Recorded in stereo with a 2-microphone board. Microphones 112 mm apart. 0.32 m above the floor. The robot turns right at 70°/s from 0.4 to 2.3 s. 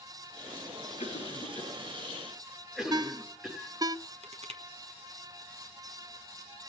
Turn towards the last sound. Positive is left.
turn(degrees=-65)  # may be behind; listen again after turning